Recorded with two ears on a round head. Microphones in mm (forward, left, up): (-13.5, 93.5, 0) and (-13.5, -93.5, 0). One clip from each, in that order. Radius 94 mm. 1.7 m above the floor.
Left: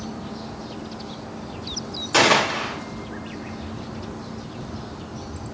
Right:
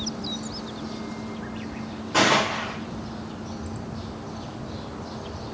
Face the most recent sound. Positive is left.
turn(degrees=80)